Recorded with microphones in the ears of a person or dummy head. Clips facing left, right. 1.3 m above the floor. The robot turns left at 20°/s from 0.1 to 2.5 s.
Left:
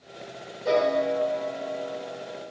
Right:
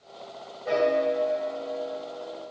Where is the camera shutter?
I don't hear a camera shutter.